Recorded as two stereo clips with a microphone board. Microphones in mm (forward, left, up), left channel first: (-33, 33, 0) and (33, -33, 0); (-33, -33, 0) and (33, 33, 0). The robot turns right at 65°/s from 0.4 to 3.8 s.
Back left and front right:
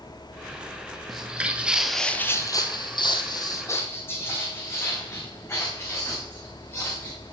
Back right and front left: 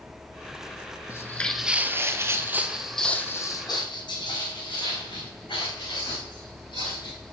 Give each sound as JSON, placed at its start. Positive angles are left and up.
{"t": 1.1, "sound": "footsteps", "azimuth_deg": -135, "distance_m": 0.6}